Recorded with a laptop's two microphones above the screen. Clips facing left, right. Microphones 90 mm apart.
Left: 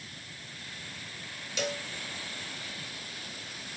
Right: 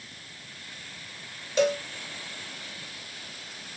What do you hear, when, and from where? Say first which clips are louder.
1.6 s a cowbell: right 11 dB; 40° right (ahead or behind), 1.0 m